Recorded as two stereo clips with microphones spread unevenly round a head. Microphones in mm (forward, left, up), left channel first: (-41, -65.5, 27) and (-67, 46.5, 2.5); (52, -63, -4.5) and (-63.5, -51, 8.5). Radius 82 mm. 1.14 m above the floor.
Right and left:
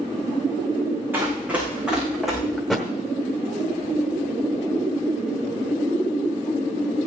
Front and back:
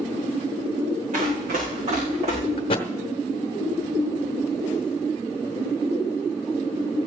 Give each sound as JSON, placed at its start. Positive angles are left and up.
{"t": 1.1, "sound": "running footsteps", "azimuth_deg": 180, "distance_m": 6.0}
{"t": 2.6, "sound": "a thud", "azimuth_deg": -5, "distance_m": 0.9}